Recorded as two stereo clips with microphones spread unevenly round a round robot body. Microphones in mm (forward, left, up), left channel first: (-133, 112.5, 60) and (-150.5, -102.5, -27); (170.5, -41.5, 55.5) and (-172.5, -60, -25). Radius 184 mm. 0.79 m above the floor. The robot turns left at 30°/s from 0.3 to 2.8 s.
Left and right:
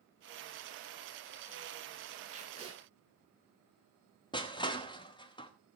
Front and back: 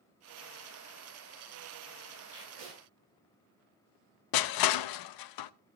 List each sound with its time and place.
2.3 s tape being pulled: 145° right, 10 m; by 2.8 s 160° right, 10 m
4.3 s crushing: 5° right, 0.7 m